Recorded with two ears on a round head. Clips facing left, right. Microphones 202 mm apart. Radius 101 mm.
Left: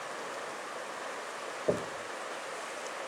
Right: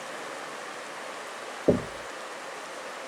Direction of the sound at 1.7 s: 55° right (ahead or behind).